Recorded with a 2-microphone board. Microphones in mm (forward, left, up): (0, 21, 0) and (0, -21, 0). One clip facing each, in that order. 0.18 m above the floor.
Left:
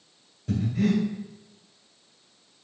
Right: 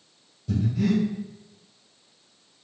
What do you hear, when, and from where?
0.5 s breathing: 65° left (ahead or behind), 1.8 m